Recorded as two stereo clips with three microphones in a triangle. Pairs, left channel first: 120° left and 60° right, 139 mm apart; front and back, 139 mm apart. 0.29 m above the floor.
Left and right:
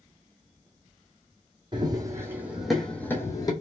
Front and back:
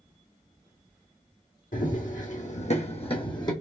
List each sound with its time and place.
1.7 s running footsteps: straight ahead, 1.0 m; by 3.5 s 60° left, 0.9 m